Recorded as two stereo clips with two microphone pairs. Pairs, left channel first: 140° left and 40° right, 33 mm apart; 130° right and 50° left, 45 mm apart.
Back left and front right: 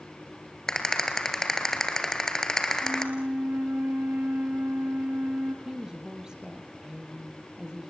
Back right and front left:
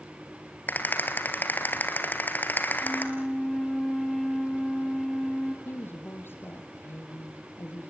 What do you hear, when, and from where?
0.7 s a rattle: 150° right, 2.5 m
2.8 s a flute: 45° right, 2 m
5.7 s a woman speaking: 110° right, 3.5 m